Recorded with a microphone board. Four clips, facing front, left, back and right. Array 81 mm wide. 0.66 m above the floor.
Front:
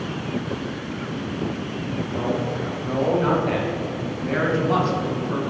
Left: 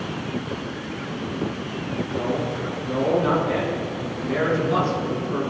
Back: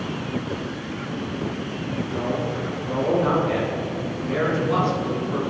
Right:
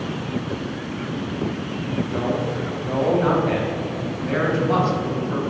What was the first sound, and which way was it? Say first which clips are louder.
A man speaking: even, front 2 dB; 65° right.